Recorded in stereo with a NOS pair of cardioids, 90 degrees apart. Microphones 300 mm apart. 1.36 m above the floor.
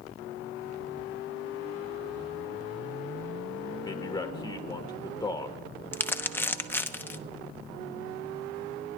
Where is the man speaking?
15° left, 1.3 m.